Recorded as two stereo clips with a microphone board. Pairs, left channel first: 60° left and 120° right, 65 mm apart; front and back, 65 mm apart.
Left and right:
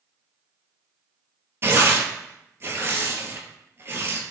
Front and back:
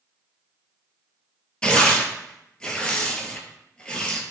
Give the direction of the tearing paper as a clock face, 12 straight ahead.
2 o'clock.